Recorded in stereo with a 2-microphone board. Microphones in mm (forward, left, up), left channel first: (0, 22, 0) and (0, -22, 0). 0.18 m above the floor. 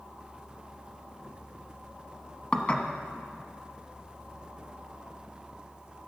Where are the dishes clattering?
30° left (ahead or behind), 1.1 m.